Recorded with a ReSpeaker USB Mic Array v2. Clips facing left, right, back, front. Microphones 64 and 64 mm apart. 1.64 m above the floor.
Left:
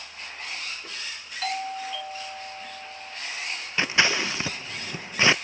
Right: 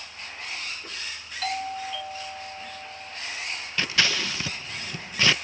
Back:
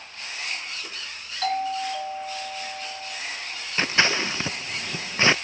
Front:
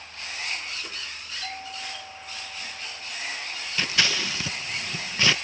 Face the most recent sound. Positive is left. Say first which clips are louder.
# left 3 dB, back 4 dB
turn(degrees=145)